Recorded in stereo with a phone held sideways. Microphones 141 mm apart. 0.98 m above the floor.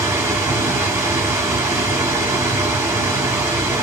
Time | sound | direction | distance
0.0 | a machine running | 20° right (ahead or behind) | 0.9 m